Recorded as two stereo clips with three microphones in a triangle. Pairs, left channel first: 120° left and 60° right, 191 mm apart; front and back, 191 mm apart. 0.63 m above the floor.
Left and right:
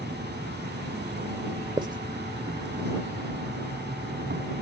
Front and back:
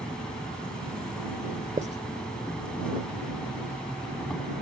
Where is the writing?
130° right.